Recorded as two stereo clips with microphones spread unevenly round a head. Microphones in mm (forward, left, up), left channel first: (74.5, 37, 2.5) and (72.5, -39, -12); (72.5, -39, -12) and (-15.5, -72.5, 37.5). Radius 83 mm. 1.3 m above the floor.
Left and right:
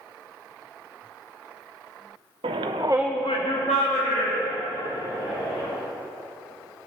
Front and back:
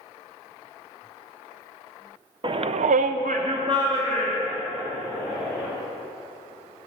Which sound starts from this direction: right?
A shout, at 2.4 s.